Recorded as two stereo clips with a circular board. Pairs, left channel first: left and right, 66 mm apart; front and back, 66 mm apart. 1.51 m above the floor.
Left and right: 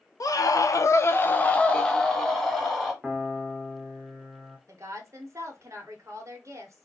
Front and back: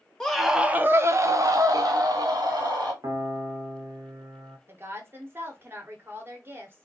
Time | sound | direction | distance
0.2 | a scream | 80° left | 0.5 m
3.0 | a piano | 175° right | 0.6 m
4.7 | a woman speaking | 125° right | 0.9 m